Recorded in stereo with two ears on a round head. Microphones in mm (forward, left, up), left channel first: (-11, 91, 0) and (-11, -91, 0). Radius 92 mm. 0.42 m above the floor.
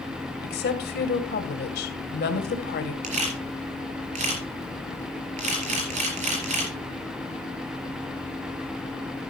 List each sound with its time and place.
0.4 s a woman speaking: 55° left (ahead or behind), 2 m
3.0 s a camera shutter: 40° right (ahead or behind), 4.5 m